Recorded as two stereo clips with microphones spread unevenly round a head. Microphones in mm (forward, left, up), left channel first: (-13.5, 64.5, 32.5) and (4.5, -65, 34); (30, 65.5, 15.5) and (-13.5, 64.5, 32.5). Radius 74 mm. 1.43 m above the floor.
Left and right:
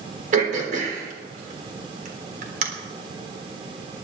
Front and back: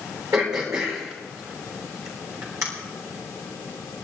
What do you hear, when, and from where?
0.3 s throat clearing: 115° right, 3.5 m